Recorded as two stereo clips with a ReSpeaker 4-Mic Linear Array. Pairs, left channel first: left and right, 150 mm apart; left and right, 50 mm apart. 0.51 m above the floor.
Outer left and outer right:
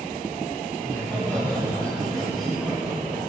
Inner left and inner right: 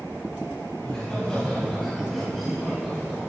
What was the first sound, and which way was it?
Laughter, 15° left (ahead or behind).